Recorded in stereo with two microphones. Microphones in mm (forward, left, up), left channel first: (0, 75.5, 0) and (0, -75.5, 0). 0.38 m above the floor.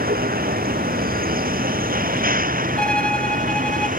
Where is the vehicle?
80° right; by 4.0 s 65° right (ahead or behind).